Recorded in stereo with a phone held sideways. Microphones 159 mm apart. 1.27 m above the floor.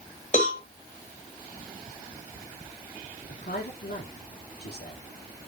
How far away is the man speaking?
About 3.5 m.